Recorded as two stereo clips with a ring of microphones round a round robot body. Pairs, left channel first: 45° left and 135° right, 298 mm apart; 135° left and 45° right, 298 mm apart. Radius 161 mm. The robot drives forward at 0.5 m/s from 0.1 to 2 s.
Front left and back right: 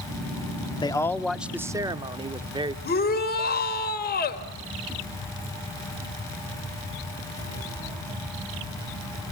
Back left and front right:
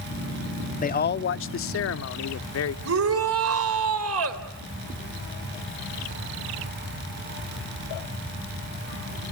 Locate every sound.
0.8 s a man speaking: 105° left, 0.7 m; by 2.8 s 155° left, 1.0 m
2.9 s a shout: 10° right, 2.5 m